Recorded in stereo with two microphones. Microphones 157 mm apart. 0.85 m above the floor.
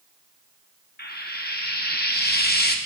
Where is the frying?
70° left (ahead or behind), 0.9 m.